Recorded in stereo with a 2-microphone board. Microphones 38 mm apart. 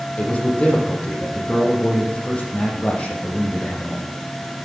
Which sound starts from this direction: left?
A man speaking, at 0.2 s.